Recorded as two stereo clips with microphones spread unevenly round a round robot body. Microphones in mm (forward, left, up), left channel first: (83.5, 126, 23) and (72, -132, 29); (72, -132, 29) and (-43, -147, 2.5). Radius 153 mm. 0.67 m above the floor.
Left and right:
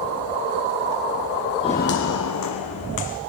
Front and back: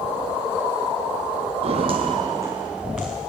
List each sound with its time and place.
1.6 s footsteps: 155° left, 0.8 m; by 3.2 s 90° left, 2.5 m